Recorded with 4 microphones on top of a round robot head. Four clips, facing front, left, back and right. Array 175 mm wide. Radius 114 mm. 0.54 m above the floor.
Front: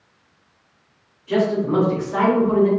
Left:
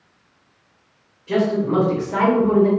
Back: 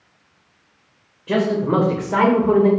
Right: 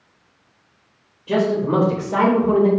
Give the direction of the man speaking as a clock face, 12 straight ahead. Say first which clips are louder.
Right 1 dB, back 1 dB; 5 o'clock.